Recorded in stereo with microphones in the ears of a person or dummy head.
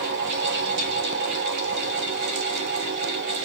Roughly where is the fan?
Right.